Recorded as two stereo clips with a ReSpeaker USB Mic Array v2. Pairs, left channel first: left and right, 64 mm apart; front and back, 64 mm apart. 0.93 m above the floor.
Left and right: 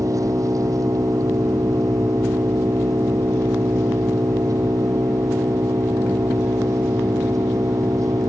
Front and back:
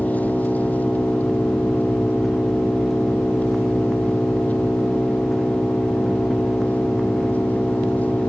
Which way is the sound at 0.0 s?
65° right.